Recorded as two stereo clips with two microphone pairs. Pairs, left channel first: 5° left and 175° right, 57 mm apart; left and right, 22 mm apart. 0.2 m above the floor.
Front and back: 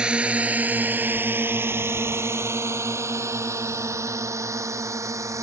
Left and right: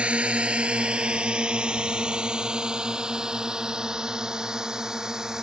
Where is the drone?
100° right; by 5.4 s 150° right.